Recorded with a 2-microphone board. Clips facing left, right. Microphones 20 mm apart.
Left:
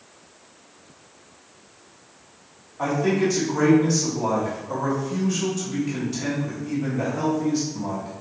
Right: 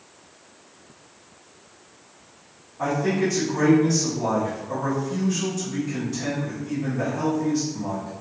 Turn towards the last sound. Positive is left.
turn(degrees=20)  # may be behind; listen again after turning